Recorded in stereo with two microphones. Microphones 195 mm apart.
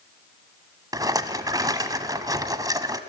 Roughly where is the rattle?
Centre.